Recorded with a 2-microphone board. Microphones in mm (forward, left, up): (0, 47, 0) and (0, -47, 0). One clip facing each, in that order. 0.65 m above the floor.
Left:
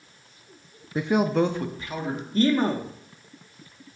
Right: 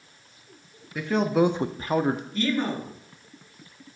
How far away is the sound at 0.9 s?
About 0.6 m.